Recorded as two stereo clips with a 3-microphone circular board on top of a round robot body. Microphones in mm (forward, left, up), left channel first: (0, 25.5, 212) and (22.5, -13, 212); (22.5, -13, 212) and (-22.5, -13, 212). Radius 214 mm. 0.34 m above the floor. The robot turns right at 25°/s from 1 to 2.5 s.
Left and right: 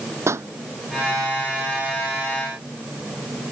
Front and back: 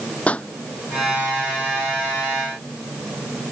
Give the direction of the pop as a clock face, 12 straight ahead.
2 o'clock.